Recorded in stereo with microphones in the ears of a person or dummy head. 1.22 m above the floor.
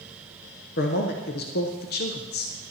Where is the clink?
No clink in this recording.